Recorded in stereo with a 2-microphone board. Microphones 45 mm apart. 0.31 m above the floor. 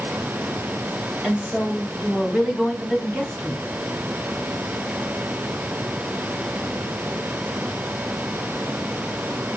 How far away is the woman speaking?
About 1.8 m.